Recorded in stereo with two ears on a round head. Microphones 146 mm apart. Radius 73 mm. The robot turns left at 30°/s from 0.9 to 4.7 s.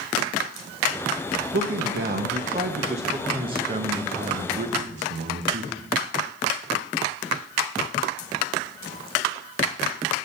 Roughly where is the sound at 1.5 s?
Right.